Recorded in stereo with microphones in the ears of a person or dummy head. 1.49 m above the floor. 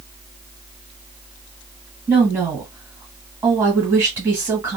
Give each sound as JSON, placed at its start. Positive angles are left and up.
{"t": 2.1, "sound": "a woman speaking", "side_deg": -15, "distance_m": 1.7}